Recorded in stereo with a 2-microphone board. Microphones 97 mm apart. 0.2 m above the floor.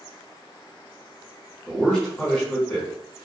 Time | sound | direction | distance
1.7 | a man speaking | 5° left (ahead or behind) | 1.5 m